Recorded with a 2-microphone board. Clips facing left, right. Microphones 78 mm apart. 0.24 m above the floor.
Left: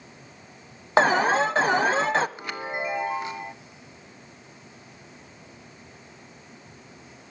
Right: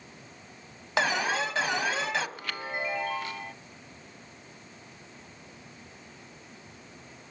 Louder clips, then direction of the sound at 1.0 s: Left 8 dB; 40° left (ahead or behind).